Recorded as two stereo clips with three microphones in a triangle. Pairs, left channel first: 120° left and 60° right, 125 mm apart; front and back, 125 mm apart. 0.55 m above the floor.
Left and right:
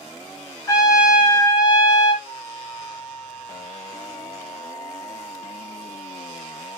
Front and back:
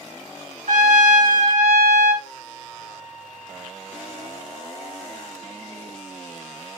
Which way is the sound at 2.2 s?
20° right.